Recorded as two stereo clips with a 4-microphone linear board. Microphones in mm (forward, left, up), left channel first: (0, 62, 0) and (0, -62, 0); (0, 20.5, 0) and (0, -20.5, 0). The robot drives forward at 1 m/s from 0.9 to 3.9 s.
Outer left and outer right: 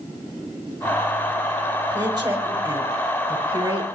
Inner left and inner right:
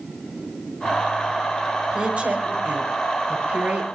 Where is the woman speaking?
35° right (ahead or behind), 5.5 m; by 3.9 s 50° right (ahead or behind), 4 m.